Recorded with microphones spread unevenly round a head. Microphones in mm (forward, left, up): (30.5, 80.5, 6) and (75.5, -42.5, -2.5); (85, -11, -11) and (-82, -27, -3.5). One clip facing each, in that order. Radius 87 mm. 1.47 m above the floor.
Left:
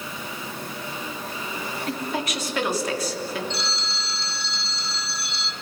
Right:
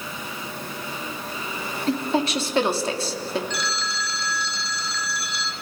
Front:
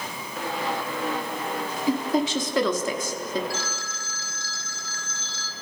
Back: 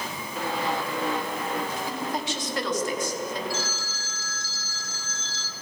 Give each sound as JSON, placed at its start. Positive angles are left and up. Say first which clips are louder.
{"t": 1.9, "sound": "a woman speaking", "louder": "right 7 dB, front 7 dB", "azimuth_deg": -10, "distance_m": 3.5}
{"t": 3.5, "sound": "a phone ringing", "louder": "right 2 dB, back 1 dB", "azimuth_deg": 45, "distance_m": 2.0}